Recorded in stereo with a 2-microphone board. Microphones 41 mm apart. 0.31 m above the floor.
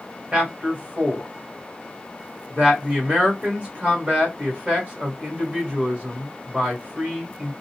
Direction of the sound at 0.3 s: 35° right (ahead or behind).